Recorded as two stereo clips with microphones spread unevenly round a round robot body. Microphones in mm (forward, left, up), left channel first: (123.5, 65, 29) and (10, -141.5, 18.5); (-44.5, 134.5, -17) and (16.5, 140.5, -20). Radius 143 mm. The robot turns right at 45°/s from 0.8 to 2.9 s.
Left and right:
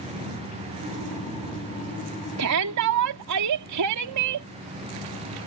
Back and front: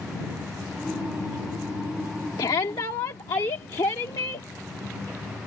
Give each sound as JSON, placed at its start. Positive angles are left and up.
{"t": 2.4, "sound": "a shout", "azimuth_deg": -150}